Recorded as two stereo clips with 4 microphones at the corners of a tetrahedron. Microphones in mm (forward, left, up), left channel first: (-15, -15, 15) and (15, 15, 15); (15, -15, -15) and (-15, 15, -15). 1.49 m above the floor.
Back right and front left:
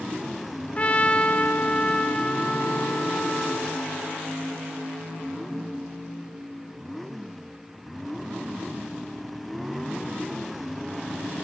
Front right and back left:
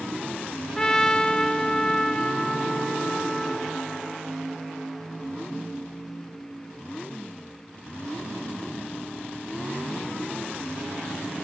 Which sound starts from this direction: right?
A trumpet, at 0.8 s.